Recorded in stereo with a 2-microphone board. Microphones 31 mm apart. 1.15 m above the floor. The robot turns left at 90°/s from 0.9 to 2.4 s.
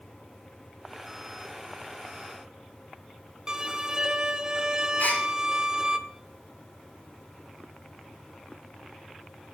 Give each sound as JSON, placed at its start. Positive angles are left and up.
{"t": 3.5, "sound": "a violin", "side_deg": -20, "distance_m": 0.8}
{"t": 5.0, "sound": "a gasp", "side_deg": 80, "distance_m": 4.0}